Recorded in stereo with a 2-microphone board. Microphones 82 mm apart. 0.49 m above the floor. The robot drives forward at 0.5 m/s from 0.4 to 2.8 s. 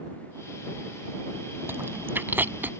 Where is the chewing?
30° right (ahead or behind); by 2.7 s 25° right (ahead or behind).